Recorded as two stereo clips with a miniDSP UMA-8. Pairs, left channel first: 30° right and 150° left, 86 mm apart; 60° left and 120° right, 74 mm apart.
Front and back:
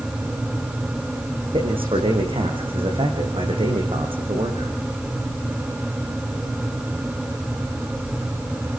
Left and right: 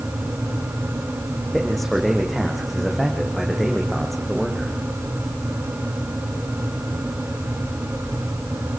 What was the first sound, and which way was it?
A man speaking, 145° left.